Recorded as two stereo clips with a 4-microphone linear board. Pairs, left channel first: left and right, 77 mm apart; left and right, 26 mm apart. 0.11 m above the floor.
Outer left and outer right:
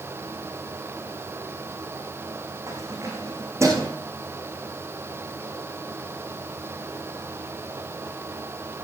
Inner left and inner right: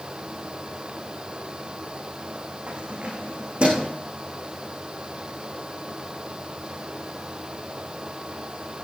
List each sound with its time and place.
2.7 s keys jangling: 45° right (ahead or behind), 6 m; by 3.9 s 40° right (ahead or behind), 6.5 m